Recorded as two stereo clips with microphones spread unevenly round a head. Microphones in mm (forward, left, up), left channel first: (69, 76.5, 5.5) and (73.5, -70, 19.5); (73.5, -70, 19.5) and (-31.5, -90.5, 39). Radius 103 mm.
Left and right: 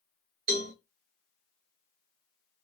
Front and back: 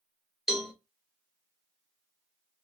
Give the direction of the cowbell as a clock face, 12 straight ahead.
3 o'clock.